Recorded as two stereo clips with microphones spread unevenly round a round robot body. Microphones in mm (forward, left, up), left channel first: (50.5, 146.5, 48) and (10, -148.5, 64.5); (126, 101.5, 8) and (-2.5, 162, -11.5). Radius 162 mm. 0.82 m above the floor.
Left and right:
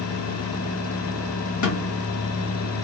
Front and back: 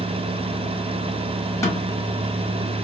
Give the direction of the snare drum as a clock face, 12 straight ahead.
10 o'clock.